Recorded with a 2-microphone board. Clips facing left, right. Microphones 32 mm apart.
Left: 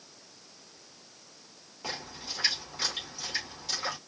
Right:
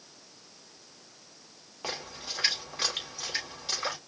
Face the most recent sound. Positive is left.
turn(degrees=-30)  # may be behind; listen again after turning